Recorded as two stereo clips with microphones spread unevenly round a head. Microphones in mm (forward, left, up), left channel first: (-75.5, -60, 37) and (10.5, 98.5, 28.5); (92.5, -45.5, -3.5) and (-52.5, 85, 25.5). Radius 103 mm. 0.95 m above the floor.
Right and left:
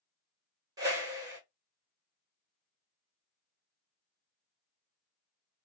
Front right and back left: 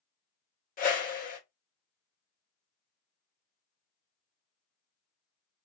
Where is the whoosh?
5° right, 1.6 m.